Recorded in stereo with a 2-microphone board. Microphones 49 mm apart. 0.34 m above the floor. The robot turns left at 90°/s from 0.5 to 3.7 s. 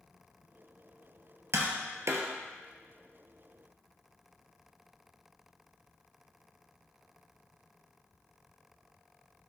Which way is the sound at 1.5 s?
60° right (ahead or behind).